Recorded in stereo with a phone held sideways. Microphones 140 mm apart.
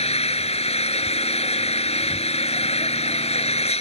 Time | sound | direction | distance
0.0 | an engine running | 45° left (ahead or behind) | ?